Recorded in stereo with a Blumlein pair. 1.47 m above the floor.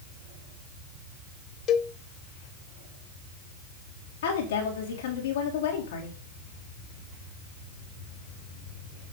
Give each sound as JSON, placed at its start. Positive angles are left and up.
{"t": 1.7, "sound": "a cowbell", "azimuth_deg": 30, "distance_m": 0.7}
{"t": 4.2, "sound": "a woman speaking", "azimuth_deg": 60, "distance_m": 3.5}